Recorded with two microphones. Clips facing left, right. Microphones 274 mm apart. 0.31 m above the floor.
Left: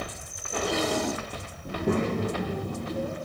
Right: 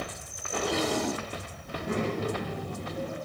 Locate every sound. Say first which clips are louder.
1.6 s a child speaking: left 5 dB; 70° left (ahead or behind), 6 m; by 3.2 s 50° left (ahead or behind), 6 m